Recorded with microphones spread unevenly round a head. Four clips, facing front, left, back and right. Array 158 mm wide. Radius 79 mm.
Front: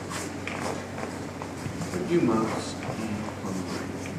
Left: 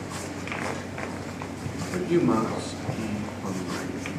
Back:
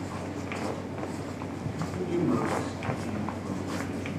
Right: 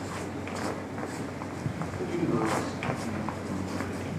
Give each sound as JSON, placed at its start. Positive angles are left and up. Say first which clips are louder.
{"t": 1.9, "sound": "a man speaking", "louder": "left 7 dB, front 4 dB", "azimuth_deg": 45, "distance_m": 5.5}